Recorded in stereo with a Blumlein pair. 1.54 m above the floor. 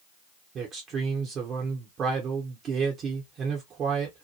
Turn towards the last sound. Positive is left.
turn(degrees=-25)